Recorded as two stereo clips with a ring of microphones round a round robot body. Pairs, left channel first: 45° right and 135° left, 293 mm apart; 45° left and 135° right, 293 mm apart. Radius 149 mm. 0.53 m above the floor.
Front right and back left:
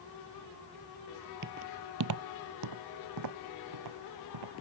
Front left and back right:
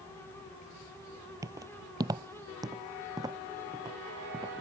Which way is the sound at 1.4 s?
155° left.